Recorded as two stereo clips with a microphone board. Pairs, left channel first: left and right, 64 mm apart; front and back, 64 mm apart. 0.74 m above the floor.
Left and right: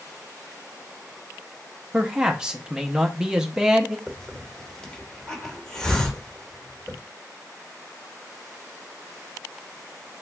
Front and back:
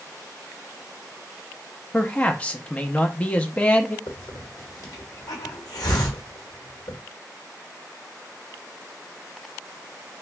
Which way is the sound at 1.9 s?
30° right.